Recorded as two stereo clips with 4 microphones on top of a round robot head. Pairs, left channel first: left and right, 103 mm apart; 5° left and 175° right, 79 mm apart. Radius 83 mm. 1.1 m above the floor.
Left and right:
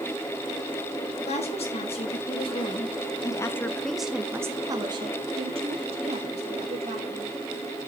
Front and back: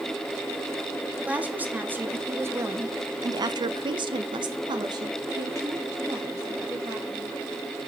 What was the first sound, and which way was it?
A woman speaking, 115° left.